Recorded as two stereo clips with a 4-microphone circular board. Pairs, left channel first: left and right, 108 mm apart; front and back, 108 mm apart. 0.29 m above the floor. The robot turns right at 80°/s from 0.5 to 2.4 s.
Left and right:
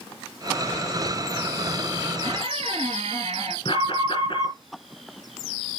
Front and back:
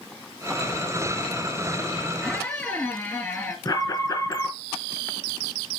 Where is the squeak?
85° right, 4 m; by 3.5 s 70° right, 4 m.